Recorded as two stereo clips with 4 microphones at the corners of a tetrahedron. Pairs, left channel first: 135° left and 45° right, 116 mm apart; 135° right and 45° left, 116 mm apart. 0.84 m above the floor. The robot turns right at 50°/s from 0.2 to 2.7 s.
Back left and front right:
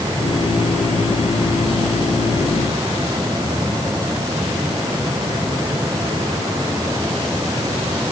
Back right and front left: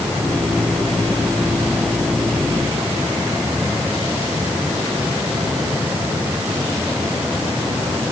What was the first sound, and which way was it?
Only background noise.